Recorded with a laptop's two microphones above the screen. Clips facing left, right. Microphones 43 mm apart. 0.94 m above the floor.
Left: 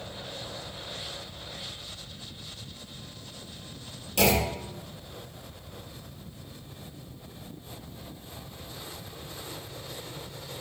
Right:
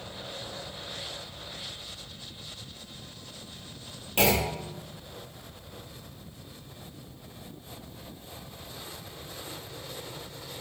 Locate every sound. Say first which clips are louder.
4.2 s a clunk: left 1 dB; 35° right (ahead or behind), 0.6 m